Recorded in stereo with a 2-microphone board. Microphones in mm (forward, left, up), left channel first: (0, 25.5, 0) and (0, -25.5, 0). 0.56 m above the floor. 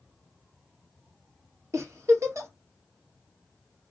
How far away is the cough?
No cough in this recording.